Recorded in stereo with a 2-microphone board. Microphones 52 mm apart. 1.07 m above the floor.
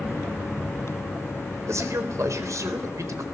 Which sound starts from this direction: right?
A man speaking, at 1.7 s.